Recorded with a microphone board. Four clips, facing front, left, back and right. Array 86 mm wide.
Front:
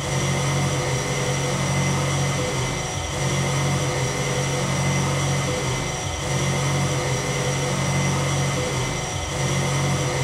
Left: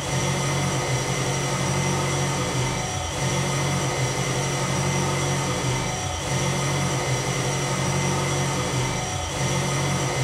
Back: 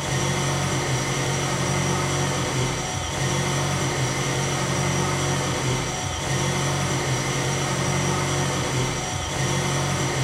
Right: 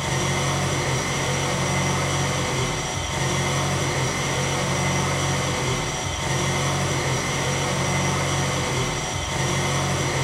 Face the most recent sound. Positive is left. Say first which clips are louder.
# right 1 dB, front 1 dB
turn(degrees=-85)